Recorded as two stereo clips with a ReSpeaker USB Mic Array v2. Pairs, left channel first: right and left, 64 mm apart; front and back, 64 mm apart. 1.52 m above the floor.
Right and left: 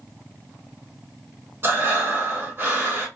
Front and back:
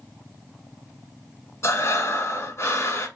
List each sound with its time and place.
1.6 s breathing: 35° left, 2 m